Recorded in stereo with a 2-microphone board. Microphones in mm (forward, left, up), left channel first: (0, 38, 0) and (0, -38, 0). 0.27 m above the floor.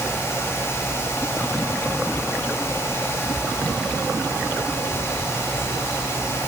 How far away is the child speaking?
I don't hear a child speaking.